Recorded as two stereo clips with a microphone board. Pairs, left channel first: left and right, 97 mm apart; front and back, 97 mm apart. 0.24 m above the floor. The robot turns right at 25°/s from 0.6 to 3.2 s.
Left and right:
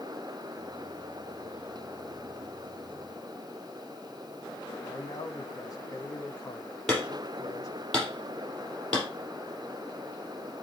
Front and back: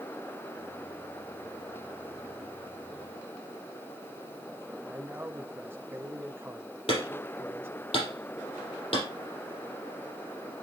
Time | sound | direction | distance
4.8 | a man speaking | 125° left | 1.6 m
6.9 | hammering | 5° left | 6.5 m